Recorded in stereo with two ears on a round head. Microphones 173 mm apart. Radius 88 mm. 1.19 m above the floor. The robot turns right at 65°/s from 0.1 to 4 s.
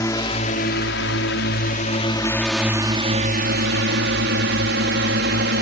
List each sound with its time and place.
0.0 s a drone: 15° left (ahead or behind); by 5.6 s 60° right (ahead or behind)